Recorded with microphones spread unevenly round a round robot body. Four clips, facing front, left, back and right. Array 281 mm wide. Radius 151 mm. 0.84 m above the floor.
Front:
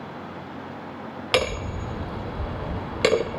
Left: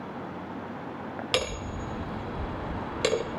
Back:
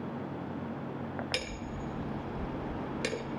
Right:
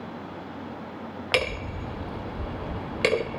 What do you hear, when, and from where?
1.3 s hammering: 10° right